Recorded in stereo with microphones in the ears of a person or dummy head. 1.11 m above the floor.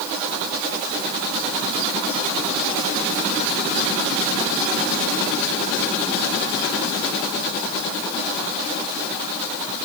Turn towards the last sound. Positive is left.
No sound to turn to.